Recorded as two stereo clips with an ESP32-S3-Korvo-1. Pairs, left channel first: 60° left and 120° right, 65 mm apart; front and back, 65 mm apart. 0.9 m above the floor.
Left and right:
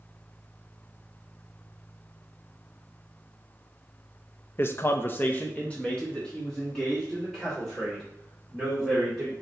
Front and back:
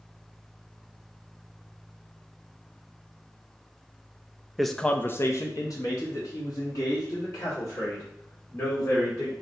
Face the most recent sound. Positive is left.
turn(degrees=-25)